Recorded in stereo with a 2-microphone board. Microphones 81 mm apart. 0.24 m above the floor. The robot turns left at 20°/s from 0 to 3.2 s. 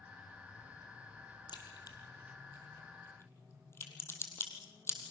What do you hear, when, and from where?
1.5 s a crack: 65° left (ahead or behind), 3 m; by 5.0 s 30° left (ahead or behind), 3 m